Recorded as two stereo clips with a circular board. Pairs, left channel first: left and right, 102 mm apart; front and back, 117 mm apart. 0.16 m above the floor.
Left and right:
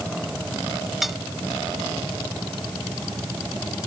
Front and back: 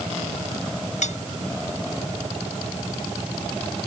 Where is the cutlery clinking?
Straight ahead.